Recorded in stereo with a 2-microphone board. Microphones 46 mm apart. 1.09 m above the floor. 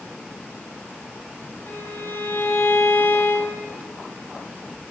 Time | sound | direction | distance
1.7 | a violin | 50° left (ahead or behind) | 8 m